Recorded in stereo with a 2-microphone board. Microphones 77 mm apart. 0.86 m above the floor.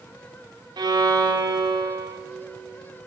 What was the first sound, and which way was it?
A violin, 65° right (ahead or behind).